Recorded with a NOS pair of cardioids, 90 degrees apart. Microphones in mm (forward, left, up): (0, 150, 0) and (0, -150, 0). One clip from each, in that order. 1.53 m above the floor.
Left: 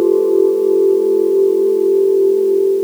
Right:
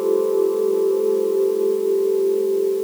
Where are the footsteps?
No footsteps in this recording.